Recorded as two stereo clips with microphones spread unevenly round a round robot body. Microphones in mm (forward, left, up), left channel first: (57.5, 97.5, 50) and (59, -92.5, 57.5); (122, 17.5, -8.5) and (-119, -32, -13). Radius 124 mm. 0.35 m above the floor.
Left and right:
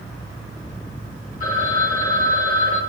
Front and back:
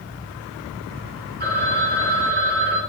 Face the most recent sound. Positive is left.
turn(degrees=140)